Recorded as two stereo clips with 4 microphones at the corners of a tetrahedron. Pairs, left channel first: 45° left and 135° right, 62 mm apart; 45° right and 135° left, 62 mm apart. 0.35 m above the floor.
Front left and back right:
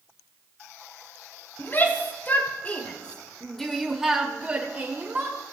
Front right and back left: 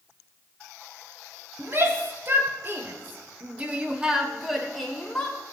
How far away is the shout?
About 2 m.